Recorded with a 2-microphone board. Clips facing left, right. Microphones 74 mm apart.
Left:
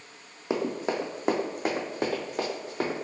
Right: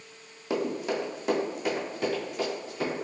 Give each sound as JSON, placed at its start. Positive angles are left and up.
{"t": 0.5, "sound": "running footsteps", "side_deg": 25, "distance_m": 0.9}